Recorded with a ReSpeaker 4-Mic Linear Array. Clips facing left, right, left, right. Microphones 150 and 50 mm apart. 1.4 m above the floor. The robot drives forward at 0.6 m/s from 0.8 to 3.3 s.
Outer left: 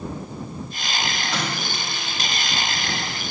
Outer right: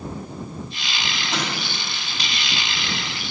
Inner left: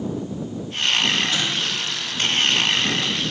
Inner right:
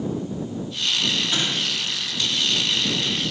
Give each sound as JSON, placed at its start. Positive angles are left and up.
{"t": 1.3, "sound": "an explosion", "side_deg": -20, "distance_m": 4.0}